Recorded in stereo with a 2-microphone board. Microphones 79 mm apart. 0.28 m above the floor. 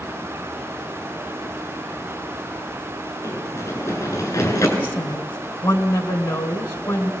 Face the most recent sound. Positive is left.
turn(degrees=30)  # may be behind; listen again after turning